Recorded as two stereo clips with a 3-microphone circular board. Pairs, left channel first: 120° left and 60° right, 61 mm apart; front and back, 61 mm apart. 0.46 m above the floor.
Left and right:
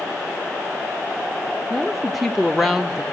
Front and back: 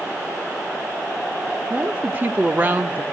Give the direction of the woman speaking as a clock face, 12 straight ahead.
5 o'clock.